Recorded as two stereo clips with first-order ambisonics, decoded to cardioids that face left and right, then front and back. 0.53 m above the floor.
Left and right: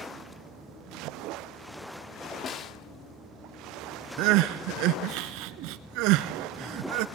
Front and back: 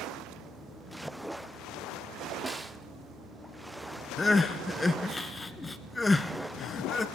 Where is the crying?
75° right, 1.1 m.